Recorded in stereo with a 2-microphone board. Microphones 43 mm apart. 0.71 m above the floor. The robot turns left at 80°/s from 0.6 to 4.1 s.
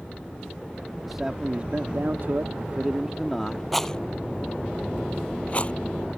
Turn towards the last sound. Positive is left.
turn(degrees=30)  # may be behind; listen again after turning